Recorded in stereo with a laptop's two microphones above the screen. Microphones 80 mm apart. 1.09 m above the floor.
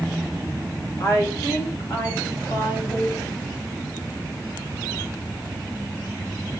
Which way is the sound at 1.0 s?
45° left (ahead or behind).